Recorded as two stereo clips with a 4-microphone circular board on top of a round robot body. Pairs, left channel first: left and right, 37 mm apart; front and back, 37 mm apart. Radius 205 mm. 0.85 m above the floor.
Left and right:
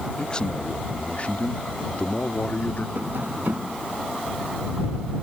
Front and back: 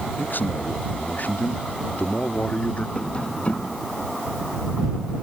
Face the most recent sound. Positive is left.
turn(degrees=-60)